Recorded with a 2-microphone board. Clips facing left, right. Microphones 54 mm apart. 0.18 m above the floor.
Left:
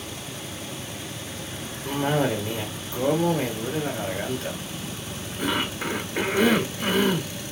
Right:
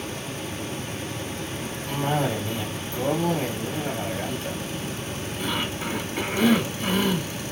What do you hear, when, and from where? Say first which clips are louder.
1.9 s a cough: left 2 dB; 55° left (ahead or behind), 2 m